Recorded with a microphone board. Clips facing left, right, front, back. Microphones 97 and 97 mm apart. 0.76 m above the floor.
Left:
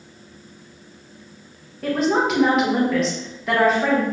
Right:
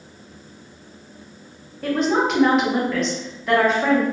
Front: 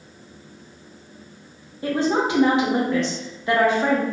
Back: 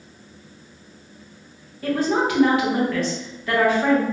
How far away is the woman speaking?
About 0.8 m.